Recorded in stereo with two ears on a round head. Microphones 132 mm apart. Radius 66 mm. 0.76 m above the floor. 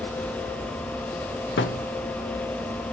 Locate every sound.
1.6 s a thud: 85° left, 1.0 m